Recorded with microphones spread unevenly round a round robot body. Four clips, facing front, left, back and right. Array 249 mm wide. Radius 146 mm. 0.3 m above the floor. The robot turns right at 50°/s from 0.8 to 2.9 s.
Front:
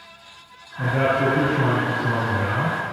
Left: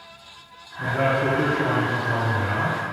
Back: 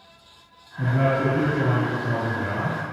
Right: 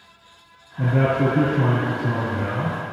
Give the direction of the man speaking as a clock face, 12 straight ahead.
4 o'clock.